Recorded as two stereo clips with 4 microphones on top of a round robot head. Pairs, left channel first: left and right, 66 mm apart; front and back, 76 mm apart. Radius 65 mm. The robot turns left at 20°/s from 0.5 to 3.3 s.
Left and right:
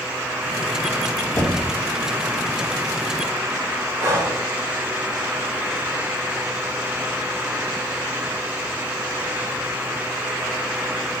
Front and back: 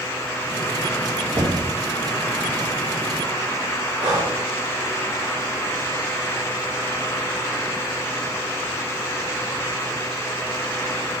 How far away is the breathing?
About 1.2 m.